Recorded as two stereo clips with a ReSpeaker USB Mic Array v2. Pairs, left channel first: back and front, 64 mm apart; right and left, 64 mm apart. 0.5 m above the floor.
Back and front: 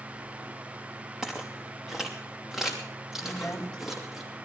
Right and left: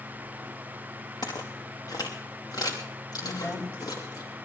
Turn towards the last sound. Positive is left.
turn(degrees=-110)